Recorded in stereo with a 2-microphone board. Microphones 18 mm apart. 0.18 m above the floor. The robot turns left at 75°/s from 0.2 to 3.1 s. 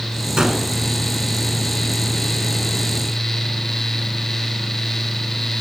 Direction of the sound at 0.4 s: 50° right (ahead or behind).